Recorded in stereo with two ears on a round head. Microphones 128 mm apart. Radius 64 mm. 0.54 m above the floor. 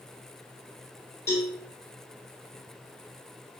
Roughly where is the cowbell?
Left.